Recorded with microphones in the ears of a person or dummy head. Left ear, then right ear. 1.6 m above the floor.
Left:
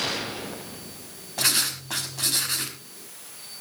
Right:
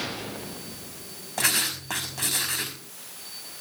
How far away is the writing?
About 5 m.